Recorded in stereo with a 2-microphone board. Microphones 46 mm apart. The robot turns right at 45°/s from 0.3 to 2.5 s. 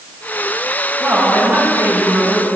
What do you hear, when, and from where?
1.0 s a woman speaking: 120° right, 6 m; by 2.5 s 55° right, 6 m